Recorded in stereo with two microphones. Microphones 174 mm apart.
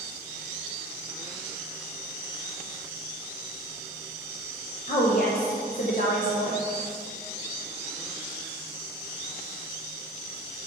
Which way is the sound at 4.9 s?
50° left (ahead or behind).